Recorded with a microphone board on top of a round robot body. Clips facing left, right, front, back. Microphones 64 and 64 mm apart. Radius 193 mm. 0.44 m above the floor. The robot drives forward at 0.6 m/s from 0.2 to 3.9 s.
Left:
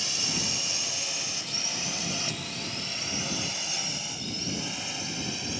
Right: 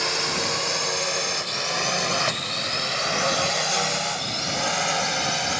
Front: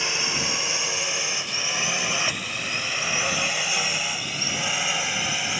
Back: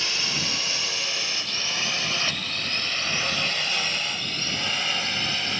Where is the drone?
70° right; by 5.6 s 80° right.